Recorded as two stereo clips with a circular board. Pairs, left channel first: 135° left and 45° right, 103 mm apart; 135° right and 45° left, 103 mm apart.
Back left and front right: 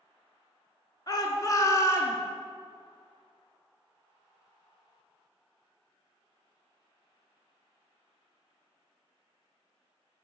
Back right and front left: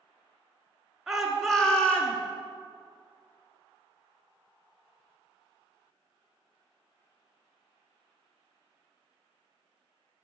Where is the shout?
130° left, 1.5 m; by 2.2 s 170° left, 1.4 m.